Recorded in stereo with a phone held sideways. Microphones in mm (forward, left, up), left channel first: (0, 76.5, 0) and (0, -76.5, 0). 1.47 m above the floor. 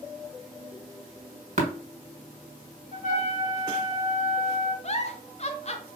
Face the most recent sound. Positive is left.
turn(degrees=45)  # may be behind; listen again after turning